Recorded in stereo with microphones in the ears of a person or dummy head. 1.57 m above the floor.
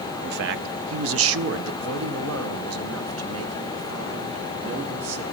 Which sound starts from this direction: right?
A man speaking, at 0.2 s.